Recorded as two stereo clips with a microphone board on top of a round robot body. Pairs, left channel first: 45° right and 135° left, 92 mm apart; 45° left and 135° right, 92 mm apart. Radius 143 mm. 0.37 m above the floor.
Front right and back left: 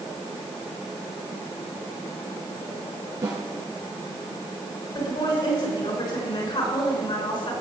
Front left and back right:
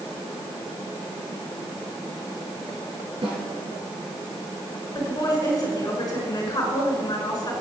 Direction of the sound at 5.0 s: 10° right.